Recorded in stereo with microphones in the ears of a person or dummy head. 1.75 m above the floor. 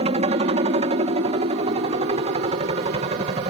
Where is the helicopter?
35° right (ahead or behind).